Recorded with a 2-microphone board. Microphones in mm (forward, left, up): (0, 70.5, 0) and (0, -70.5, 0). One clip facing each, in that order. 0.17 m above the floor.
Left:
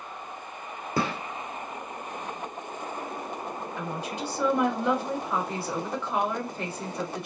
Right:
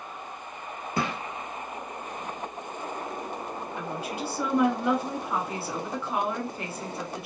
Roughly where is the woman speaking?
Centre.